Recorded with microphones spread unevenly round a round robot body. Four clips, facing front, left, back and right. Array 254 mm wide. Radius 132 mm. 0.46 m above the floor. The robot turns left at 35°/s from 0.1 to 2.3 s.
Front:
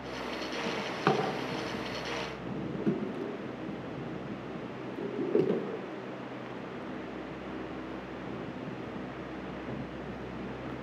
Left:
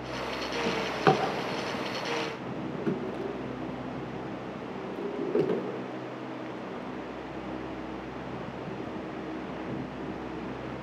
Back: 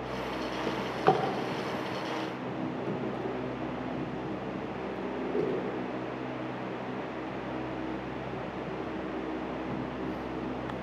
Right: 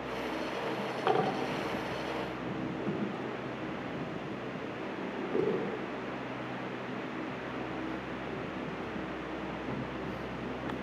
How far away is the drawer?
About 3.5 m.